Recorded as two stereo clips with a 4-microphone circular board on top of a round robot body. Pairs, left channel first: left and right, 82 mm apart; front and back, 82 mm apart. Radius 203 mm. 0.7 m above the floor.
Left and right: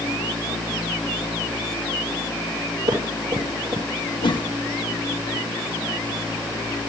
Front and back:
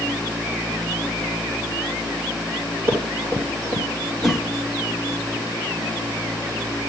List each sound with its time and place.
2.9 s running footsteps: 120° right, 9 m
4.2 s a whoosh: 90° left, 1.5 m